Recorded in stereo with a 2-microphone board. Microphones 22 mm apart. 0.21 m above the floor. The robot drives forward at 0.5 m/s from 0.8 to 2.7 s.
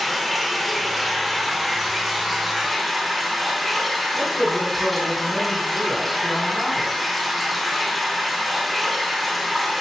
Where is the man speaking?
10° left (ahead or behind), 1.5 m.